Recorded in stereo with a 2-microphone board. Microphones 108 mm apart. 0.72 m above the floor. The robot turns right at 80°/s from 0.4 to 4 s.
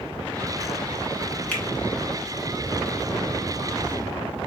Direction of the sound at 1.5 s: 10° left (ahead or behind).